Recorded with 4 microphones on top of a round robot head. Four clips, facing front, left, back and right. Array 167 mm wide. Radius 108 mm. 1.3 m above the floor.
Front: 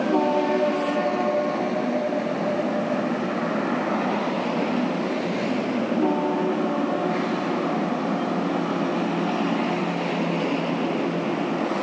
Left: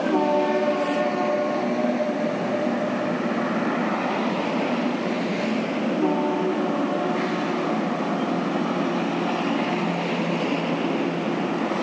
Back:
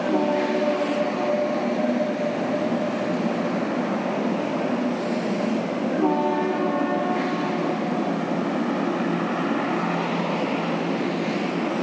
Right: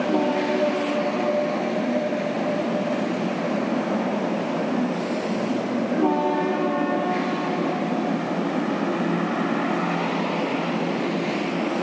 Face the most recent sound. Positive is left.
No sound to turn to.